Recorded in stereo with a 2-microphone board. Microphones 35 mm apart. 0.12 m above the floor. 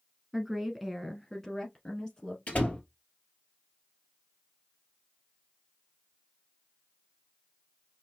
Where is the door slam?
50° left (ahead or behind), 1.6 m.